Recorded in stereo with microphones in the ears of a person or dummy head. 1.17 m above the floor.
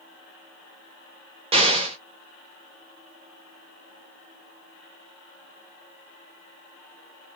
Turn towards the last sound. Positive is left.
turn(degrees=-20)  # may be behind; listen again after turning